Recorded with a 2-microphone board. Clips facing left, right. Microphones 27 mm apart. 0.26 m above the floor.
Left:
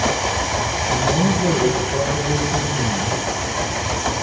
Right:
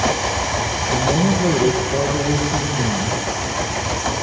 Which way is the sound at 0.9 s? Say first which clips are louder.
Right 1 dB; 40° right (ahead or behind).